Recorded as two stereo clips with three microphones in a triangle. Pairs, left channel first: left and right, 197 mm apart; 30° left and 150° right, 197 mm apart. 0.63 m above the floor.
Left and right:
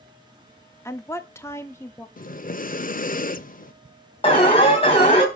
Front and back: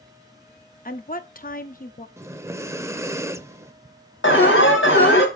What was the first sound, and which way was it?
A woman speaking, 20° left.